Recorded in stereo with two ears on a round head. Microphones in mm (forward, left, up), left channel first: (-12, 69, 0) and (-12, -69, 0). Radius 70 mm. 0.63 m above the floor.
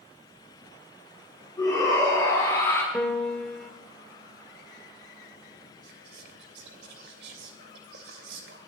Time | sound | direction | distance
1.6 | a shout | 25° left (ahead or behind) | 6 m
2.9 | a piano | 5° left (ahead or behind) | 0.9 m
5.8 | whispering | 75° right (ahead or behind) | 2.5 m